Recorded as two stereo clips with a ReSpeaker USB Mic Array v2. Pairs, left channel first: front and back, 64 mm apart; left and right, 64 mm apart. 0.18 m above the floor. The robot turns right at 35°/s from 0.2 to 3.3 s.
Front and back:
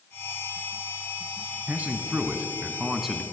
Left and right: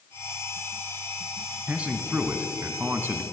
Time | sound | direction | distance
1.7 | a man speaking | 145° right | 1.1 m